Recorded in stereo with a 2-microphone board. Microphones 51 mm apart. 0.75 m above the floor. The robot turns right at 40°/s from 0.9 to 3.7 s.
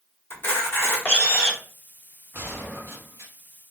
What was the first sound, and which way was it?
A camera shutter, 45° left (ahead or behind).